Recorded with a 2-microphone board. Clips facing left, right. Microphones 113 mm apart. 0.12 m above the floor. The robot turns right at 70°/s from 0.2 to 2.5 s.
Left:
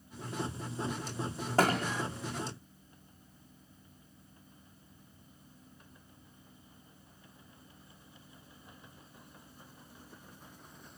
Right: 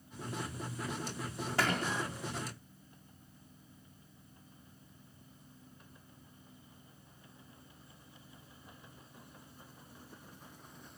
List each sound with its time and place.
1.6 s a thud: 40° left (ahead or behind), 3.5 m; by 1.8 s 25° left (ahead or behind), 3.5 m